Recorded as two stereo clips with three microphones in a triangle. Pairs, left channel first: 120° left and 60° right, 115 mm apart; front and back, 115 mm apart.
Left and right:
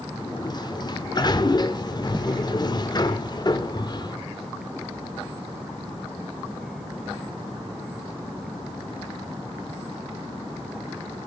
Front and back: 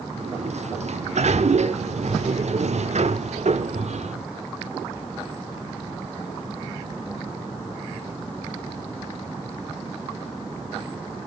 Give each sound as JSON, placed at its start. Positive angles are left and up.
{"t": 0.2, "sound": "a sliding door", "azimuth_deg": 170, "distance_m": 0.9}